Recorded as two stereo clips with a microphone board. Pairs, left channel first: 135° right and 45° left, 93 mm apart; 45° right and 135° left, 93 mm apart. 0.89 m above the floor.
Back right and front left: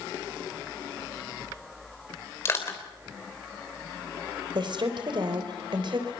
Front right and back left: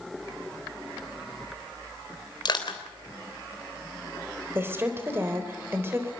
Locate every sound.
2.5 s crushing: 75° right, 3.5 m
4.5 s a woman speaking: 70° left, 3.5 m